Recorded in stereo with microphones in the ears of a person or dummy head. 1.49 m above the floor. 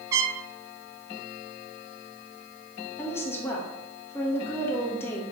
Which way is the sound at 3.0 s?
15° left (ahead or behind).